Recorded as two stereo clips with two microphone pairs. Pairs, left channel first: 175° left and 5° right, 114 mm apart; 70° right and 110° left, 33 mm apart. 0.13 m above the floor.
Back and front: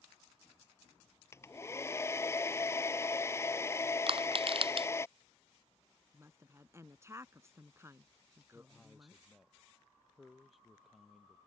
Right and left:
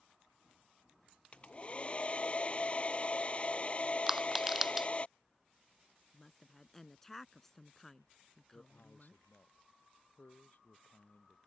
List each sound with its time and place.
1.3 s a hair dryer: 120° right
4.1 s crushing: 30° left
6.1 s a woman speaking: 5° right
8.5 s a man speaking: 95° right